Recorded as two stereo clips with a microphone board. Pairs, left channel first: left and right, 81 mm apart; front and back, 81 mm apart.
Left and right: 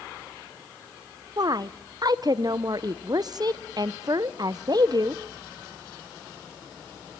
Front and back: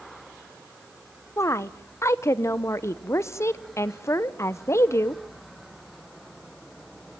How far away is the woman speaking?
About 0.9 m.